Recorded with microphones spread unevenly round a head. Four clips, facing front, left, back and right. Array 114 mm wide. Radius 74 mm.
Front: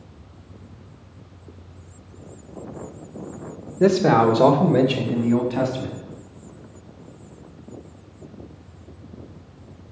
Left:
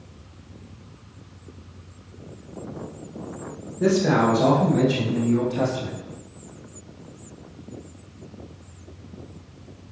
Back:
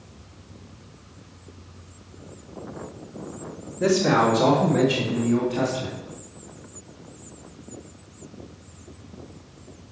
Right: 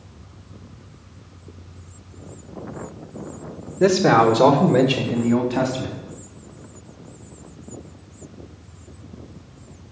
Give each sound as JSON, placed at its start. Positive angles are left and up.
{"t": 3.8, "sound": "a man speaking", "azimuth_deg": -35, "distance_m": 1.8}